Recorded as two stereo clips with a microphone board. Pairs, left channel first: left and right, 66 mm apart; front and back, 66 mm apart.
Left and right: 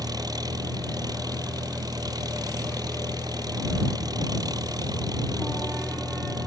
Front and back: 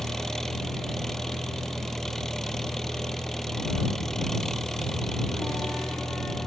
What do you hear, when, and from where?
0.0 s an engine running: 85° right